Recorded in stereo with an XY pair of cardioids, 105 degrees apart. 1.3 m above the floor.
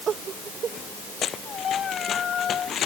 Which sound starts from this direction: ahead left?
Running footsteps, at 1.2 s.